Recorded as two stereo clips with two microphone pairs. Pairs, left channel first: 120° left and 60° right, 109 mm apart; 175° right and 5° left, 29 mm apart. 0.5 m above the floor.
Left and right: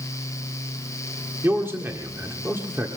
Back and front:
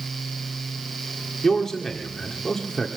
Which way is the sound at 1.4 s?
115° right.